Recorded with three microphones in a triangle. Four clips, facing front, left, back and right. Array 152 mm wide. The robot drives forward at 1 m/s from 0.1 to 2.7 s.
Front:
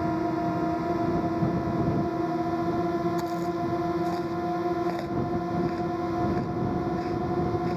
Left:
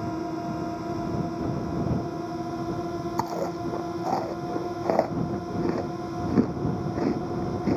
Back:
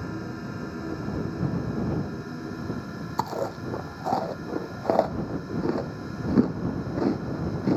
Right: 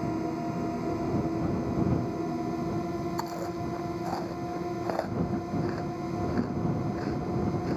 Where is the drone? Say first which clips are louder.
Left 1 dB, front 9 dB; 10° left.